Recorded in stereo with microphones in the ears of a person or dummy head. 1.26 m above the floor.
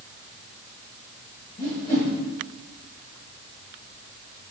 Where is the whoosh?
45° left (ahead or behind), 6 m.